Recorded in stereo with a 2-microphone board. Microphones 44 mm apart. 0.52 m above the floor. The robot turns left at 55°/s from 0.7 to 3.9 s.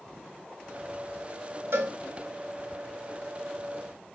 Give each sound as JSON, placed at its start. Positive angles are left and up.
{"t": 1.7, "sound": "a cowbell", "side_deg": -75, "distance_m": 1.4}